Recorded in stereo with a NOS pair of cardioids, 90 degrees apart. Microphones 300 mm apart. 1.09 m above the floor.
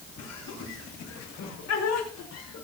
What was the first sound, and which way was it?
Laughter, 65° left.